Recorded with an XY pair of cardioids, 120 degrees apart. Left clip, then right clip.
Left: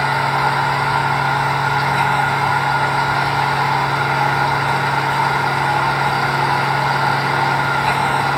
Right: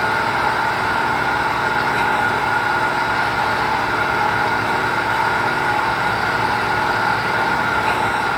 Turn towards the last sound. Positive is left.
turn(degrees=30)